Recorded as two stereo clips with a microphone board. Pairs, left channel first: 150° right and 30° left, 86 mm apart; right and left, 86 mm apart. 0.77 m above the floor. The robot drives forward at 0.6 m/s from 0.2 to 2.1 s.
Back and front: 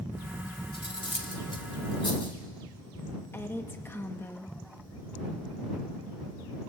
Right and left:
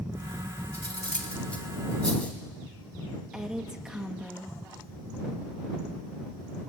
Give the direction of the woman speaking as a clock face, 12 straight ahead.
6 o'clock.